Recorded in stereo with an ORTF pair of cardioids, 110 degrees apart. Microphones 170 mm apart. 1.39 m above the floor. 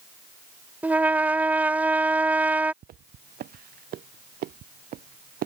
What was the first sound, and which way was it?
A trumpet, 10° right.